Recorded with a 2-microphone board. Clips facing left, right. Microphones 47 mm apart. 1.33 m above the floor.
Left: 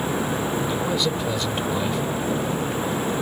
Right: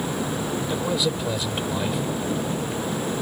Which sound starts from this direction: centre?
A man speaking, at 0.7 s.